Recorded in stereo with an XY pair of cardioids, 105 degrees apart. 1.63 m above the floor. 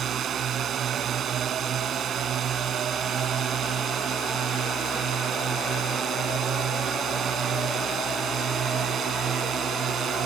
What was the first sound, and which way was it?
A drone, 55° right.